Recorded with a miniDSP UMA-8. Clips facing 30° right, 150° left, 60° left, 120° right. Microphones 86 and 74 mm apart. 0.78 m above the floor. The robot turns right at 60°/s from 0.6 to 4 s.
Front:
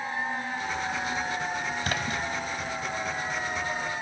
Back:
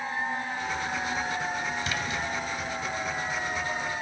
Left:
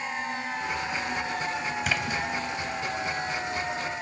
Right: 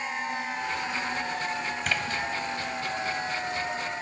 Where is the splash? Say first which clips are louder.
Front 1 dB, even; 30° right, 0.8 m; by 2.2 s 5° right, 0.8 m.